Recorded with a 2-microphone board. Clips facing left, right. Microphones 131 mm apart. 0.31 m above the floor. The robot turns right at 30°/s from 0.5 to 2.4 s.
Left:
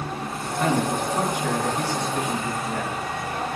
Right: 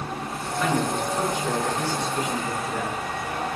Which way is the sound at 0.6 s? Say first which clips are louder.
Left 2 dB; 60° left.